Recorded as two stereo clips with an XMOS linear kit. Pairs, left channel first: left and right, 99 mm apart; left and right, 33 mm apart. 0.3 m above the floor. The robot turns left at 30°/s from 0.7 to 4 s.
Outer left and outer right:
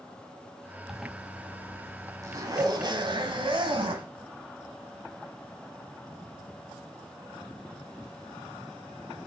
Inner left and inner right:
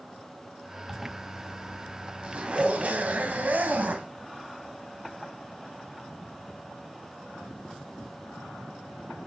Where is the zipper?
Straight ahead, 1.3 m; by 4.1 s 95° right, 1.3 m.